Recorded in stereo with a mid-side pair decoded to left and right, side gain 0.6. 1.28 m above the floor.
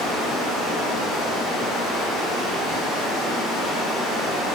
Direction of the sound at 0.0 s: 60° left.